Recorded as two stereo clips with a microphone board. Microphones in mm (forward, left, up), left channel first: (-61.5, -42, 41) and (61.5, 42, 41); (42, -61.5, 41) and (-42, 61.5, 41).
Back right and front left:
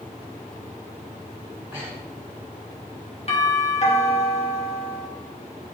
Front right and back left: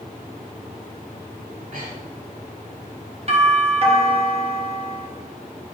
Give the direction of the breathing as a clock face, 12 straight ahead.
8 o'clock.